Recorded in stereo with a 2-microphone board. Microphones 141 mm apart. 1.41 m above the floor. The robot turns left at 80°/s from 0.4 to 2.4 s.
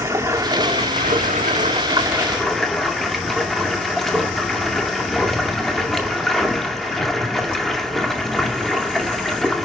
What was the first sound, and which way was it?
Running water, 20° right.